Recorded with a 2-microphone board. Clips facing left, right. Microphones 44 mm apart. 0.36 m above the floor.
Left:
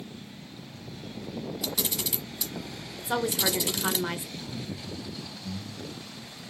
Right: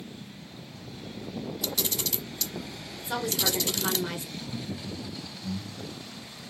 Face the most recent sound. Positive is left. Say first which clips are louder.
# right 1 dB
turn(degrees=-25)  # may be behind; listen again after turning